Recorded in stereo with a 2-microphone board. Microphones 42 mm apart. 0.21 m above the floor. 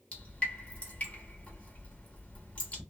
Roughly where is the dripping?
Left.